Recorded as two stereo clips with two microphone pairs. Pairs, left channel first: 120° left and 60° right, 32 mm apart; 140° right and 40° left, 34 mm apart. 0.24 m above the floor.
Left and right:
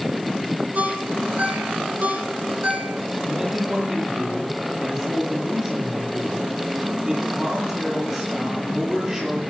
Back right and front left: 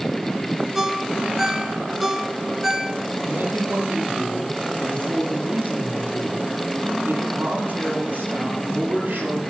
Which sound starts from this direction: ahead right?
A ringtone, at 0.8 s.